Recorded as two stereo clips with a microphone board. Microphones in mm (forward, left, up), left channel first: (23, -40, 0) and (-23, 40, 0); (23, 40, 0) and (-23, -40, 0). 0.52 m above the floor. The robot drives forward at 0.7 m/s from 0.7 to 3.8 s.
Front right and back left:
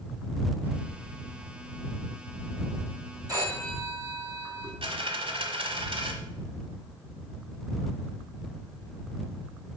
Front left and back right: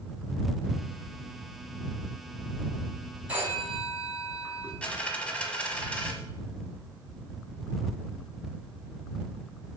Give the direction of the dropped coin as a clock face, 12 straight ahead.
7 o'clock.